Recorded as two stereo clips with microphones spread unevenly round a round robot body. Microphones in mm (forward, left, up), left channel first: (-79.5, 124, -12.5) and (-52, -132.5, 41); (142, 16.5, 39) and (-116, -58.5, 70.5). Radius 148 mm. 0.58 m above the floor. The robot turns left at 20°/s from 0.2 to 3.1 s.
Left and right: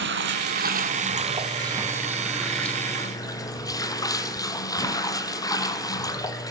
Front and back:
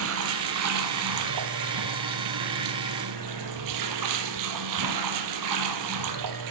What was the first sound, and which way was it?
Running water, 125° right.